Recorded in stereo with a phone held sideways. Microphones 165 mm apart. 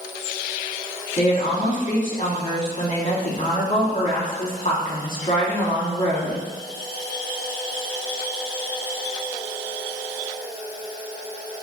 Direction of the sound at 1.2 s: 55° left (ahead or behind).